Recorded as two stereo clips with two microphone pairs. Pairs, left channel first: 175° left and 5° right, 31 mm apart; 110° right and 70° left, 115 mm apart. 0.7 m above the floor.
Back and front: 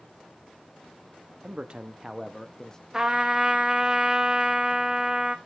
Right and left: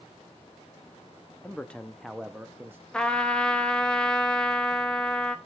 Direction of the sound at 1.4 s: 35° right.